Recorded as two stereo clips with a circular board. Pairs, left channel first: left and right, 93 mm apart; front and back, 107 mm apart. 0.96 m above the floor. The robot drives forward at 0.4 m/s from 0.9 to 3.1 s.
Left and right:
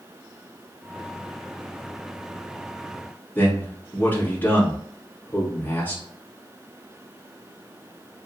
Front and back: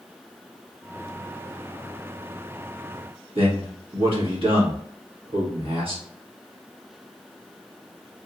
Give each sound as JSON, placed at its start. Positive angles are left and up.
{"t": 3.4, "sound": "a man speaking", "azimuth_deg": 155, "distance_m": 2.0}